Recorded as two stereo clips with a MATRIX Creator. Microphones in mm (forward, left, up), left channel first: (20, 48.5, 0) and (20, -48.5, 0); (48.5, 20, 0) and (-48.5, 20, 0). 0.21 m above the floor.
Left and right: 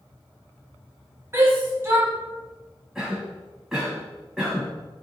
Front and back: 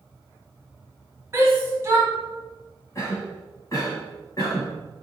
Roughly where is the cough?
Ahead.